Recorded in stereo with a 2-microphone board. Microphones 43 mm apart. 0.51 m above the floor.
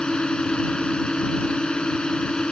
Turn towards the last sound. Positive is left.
turn(degrees=20)  # may be behind; listen again after turning